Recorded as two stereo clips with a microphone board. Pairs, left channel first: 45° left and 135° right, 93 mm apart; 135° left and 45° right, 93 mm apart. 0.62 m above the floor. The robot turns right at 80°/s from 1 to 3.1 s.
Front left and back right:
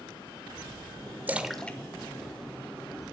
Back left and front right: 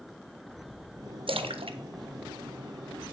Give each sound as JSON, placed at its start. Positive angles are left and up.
{"t": 1.3, "sound": "a splash", "azimuth_deg": -65, "distance_m": 0.5}